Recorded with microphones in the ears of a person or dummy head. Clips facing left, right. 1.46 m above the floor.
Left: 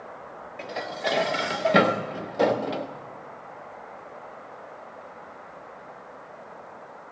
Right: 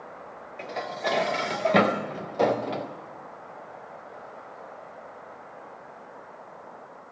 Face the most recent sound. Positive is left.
turn(degrees=5)  # may be behind; listen again after turning